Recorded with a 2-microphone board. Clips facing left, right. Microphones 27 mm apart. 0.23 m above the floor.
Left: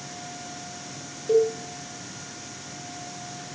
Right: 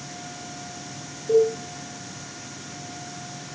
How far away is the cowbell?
About 4.5 m.